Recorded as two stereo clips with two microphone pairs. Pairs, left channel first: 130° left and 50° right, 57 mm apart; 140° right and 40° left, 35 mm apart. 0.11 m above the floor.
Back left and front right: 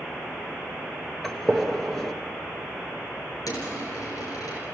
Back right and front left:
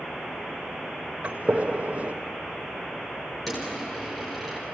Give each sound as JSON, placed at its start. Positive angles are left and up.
{"t": 1.2, "sound": "a gunshot", "azimuth_deg": 45, "distance_m": 1.6}
{"t": 3.5, "sound": "a dropped coin", "azimuth_deg": 135, "distance_m": 7.5}